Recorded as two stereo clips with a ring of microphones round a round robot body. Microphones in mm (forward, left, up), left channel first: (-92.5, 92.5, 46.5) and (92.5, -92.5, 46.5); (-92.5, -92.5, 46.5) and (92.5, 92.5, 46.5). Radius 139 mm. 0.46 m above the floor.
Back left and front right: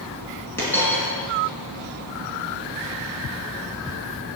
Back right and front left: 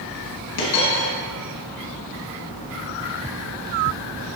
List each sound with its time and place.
0.6 s a dropped coin: 145° right, 2.5 m